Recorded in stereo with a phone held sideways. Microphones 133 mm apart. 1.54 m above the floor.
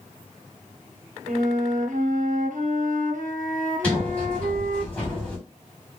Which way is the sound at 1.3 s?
75° right (ahead or behind).